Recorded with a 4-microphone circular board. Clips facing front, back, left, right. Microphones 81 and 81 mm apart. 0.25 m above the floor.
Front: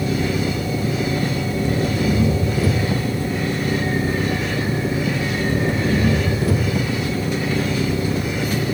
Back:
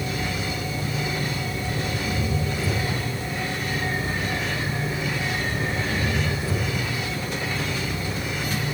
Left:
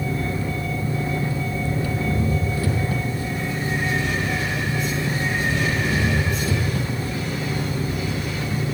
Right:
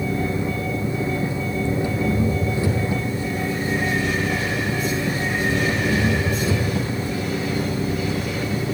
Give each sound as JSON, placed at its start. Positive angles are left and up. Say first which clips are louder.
{"t": 0.0, "sound": "an engine running", "louder": "front 8 dB, right 2 dB", "azimuth_deg": -20, "distance_m": 3.5}